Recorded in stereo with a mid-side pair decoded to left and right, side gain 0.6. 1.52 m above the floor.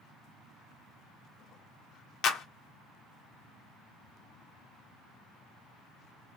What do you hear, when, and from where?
2.2 s a clap: 55° left, 0.7 m